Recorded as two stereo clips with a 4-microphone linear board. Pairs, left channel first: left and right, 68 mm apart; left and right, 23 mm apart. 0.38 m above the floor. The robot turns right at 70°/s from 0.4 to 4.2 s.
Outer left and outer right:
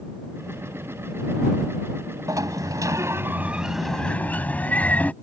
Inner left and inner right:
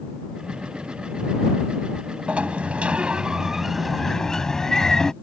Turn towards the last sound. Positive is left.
turn(degrees=25)